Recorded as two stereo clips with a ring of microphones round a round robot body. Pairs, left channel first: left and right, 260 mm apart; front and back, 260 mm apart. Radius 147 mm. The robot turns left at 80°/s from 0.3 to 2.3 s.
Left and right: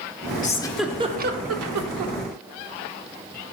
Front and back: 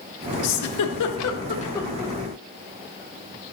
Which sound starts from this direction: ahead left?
A giggle, at 0.4 s.